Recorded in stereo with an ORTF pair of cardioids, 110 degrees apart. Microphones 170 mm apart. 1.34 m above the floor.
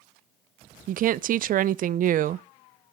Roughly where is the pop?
No pop in this recording.